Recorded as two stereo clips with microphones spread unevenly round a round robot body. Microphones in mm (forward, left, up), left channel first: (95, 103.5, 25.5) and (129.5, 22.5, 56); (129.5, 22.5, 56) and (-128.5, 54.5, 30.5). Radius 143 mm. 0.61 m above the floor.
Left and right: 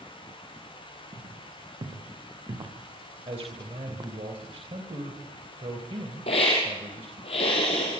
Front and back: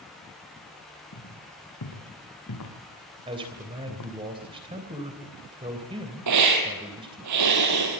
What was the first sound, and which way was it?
Footsteps, 45° right.